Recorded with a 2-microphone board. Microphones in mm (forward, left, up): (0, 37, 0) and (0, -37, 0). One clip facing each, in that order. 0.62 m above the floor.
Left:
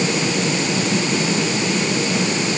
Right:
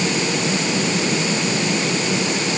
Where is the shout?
I don't hear a shout.